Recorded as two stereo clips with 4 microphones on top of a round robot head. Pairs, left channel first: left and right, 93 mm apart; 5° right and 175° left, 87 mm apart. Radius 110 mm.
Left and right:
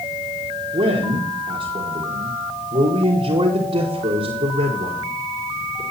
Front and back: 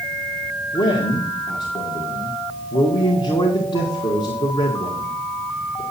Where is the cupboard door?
No cupboard door in this recording.